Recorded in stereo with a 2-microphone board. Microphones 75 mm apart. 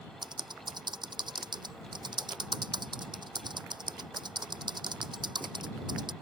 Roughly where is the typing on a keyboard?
Right.